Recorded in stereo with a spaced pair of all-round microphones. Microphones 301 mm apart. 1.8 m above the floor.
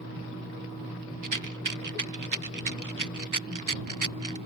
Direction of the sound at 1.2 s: 90° right.